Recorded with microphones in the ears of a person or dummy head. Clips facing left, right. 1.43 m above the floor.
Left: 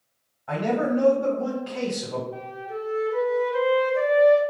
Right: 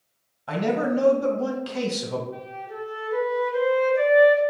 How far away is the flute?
About 1.7 m.